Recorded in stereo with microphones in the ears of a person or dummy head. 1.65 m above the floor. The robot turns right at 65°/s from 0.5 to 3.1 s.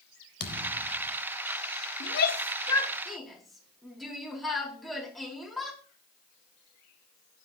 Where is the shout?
75° left (ahead or behind), 4 m; by 5.8 s 5° left (ahead or behind), 4 m.